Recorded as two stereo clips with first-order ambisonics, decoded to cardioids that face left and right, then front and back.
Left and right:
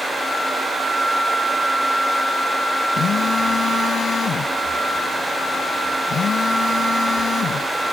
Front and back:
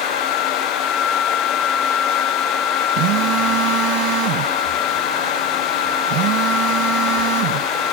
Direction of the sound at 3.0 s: 155° left.